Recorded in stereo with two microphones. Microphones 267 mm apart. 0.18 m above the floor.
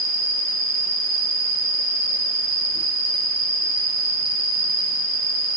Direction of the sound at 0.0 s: 50° right (ahead or behind).